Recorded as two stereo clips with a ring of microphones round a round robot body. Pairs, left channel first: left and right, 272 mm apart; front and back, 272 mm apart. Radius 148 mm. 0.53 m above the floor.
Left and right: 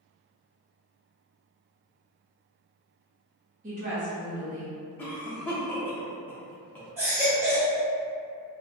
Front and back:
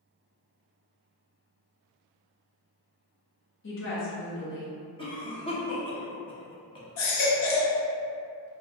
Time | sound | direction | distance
3.6 | a woman speaking | 35° right | 0.9 m
5.0 | a cough | 20° left | 0.6 m
7.0 | a baby crying | 10° right | 0.6 m